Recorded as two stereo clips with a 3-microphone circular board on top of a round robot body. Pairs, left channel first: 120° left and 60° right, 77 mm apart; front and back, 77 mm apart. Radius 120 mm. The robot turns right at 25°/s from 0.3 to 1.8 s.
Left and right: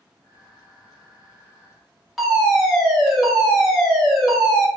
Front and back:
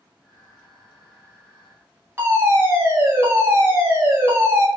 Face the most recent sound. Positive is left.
turn(degrees=-150)